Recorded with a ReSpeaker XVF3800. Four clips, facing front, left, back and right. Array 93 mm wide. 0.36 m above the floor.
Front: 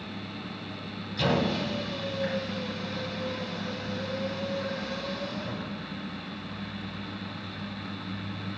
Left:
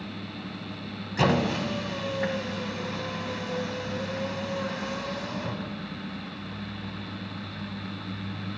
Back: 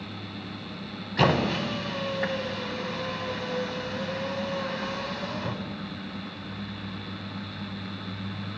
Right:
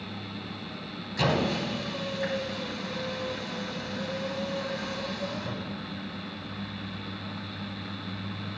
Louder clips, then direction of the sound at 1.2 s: Left 2 dB, back 3 dB; 155° left.